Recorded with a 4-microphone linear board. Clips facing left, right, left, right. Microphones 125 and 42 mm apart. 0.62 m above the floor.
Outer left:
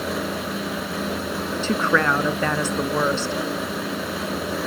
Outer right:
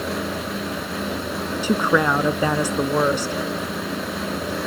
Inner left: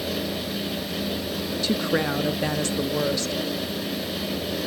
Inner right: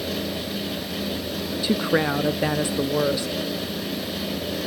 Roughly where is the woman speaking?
Centre.